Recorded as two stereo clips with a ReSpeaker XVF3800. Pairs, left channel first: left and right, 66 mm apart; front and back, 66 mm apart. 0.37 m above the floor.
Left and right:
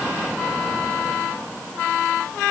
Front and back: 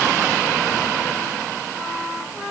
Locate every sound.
Only background noise.